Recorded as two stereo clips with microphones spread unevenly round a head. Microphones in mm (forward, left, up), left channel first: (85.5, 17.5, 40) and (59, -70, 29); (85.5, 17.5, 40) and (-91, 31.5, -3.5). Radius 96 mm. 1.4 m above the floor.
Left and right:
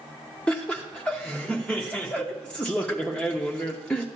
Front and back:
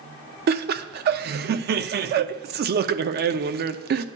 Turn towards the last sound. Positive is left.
turn(degrees=155)